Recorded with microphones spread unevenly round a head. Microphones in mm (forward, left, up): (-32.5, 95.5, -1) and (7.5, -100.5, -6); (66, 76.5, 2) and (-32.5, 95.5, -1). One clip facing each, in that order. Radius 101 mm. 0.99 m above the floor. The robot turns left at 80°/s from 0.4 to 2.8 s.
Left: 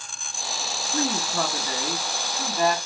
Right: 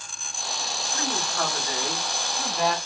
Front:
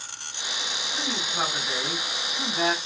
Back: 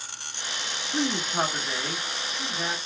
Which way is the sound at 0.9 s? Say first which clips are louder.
Left 5 dB, back 5 dB; 145° left.